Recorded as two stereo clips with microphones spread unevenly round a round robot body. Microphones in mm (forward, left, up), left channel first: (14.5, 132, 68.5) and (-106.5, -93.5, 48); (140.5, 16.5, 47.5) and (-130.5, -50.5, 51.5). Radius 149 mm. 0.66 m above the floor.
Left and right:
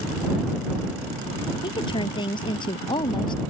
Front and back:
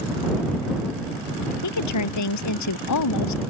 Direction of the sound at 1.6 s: 15° right.